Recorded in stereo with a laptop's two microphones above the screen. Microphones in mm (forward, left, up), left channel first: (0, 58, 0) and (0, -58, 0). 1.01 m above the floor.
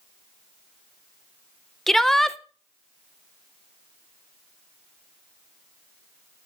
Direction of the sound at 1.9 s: 5° left (ahead or behind).